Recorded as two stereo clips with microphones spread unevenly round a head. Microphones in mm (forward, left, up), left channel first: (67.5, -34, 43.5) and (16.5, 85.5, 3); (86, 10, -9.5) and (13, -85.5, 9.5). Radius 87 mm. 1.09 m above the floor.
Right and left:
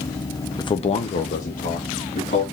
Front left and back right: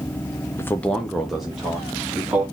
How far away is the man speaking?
About 0.5 m.